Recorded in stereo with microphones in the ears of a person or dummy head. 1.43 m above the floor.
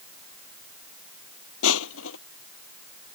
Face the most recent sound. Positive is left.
turn(degrees=75)  # may be behind; listen again after turning